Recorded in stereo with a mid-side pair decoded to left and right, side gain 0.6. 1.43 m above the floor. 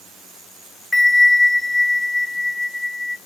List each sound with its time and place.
0.9 s a bell: 15° left, 0.5 m